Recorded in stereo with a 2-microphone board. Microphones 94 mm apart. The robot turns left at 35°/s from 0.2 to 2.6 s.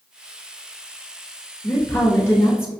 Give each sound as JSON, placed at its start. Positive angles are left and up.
{"t": 1.6, "sound": "a woman speaking", "side_deg": 25, "distance_m": 1.4}